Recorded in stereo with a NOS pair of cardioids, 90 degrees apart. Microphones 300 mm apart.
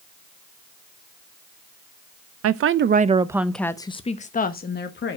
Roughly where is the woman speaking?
Ahead right.